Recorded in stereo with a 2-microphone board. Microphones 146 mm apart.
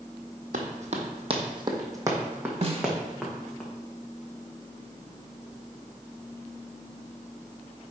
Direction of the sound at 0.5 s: 65° right (ahead or behind).